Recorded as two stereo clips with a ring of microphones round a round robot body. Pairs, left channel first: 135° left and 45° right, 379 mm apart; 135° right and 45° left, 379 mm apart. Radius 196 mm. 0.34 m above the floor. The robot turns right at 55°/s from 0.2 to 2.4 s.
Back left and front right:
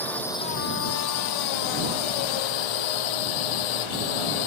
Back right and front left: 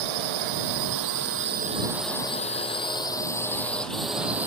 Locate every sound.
0.0 s a drone: 50° left; by 4.5 s 130° left